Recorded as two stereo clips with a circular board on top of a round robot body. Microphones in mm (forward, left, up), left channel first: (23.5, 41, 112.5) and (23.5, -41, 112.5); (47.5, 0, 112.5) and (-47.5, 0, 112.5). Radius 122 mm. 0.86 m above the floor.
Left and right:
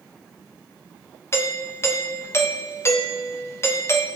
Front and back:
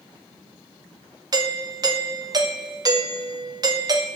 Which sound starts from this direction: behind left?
A doorbell, at 1.3 s.